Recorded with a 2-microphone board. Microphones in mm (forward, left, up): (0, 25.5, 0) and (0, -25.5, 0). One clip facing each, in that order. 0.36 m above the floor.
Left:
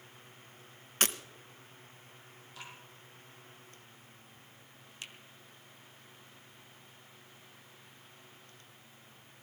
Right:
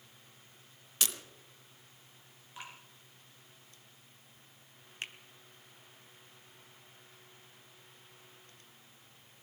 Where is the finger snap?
40° right (ahead or behind), 0.8 m.